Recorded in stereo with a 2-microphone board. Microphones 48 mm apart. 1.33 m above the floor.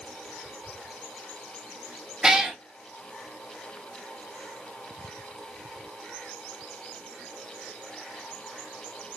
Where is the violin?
I don't hear a violin.